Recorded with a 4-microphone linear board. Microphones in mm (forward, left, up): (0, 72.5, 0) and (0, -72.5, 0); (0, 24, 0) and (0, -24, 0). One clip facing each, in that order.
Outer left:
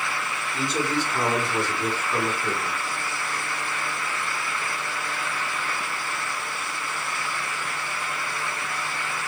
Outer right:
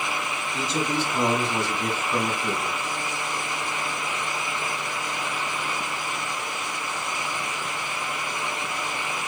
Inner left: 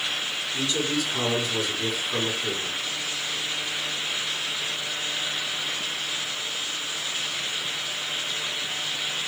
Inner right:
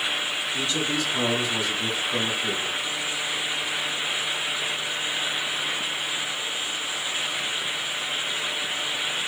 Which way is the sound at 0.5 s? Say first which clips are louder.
Outer left 1 dB, inner left 1 dB; 20° right (ahead or behind).